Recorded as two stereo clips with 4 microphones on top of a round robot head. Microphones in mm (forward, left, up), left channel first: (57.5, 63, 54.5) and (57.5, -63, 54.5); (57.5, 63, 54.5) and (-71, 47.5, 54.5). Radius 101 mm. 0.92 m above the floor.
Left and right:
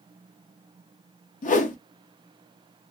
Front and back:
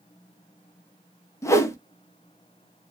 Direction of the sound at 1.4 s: 75° left.